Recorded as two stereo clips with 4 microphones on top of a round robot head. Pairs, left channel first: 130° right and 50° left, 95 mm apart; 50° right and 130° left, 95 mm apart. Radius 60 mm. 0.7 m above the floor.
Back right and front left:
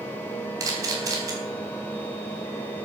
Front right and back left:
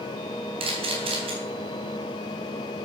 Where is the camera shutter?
105° left, 3.5 m.